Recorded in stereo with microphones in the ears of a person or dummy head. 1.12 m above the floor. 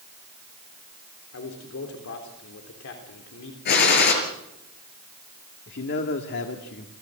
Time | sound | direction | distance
1.3 | a man speaking | 70° left (ahead or behind) | 3.5 m
3.6 | a gunshot | 55° left (ahead or behind) | 4.5 m
5.7 | a man speaking | 55° left (ahead or behind) | 2 m